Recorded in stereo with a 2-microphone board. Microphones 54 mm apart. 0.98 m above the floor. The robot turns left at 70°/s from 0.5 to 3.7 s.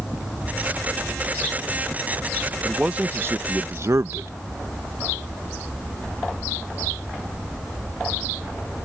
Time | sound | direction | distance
2.6 | a man speaking | 10° right | ?